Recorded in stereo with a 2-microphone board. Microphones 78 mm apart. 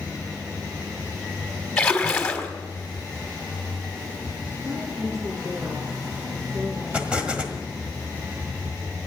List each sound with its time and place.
1.8 s a splash: 10° left (ahead or behind), 1.6 m
4.6 s a woman speaking: 55° right (ahead or behind), 9 m
6.9 s an explosion: 15° right (ahead or behind), 1.5 m